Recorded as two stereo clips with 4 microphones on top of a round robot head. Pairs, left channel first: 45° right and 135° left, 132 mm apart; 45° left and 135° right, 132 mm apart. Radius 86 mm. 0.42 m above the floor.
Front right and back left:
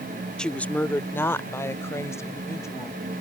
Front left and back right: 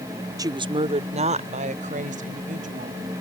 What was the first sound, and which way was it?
A woman speaking, 125° right.